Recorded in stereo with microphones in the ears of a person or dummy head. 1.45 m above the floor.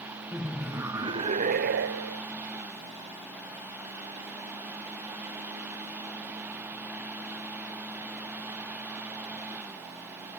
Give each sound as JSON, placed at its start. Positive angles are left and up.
{"t": 0.3, "sound": "laughter", "side_deg": 5}